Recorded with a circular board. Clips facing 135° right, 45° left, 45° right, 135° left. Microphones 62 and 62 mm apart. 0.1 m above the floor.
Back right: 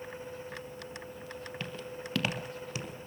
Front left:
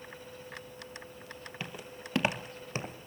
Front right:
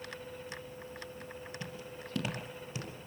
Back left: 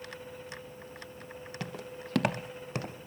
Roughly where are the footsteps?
Behind left.